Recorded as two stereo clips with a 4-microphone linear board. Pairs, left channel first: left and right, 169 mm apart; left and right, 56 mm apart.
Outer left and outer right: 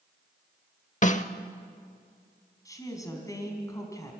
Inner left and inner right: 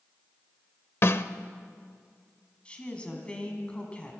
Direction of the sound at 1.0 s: 45° left (ahead or behind).